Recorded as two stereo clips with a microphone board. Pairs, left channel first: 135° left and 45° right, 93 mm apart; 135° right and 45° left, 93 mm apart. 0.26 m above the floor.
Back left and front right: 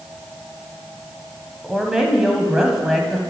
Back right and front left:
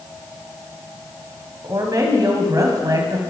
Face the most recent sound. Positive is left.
turn(degrees=35)